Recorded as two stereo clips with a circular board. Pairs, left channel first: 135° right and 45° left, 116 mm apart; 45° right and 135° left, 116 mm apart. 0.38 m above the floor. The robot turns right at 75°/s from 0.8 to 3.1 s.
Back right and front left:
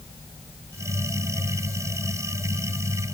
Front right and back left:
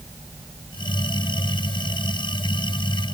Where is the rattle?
No rattle in this recording.